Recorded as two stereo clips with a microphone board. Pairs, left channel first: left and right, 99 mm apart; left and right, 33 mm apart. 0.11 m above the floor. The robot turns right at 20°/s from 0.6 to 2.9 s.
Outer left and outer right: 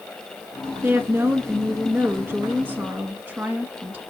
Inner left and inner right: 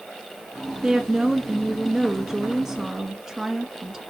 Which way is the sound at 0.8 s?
20° right (ahead or behind).